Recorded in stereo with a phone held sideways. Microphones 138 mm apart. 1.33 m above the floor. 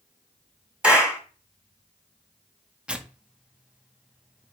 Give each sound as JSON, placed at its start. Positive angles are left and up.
{"t": 0.8, "sound": "a clap", "side_deg": -5, "distance_m": 4.0}
{"t": 2.9, "sound": "tearing paper", "side_deg": -10, "distance_m": 0.8}